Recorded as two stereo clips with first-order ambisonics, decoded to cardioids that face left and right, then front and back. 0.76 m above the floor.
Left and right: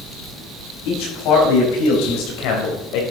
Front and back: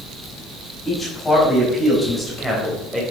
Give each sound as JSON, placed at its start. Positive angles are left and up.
{"t": 0.8, "sound": "a man speaking", "azimuth_deg": 75, "distance_m": 5.0}